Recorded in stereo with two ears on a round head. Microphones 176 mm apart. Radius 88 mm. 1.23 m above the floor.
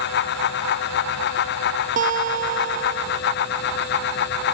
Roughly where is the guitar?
Right.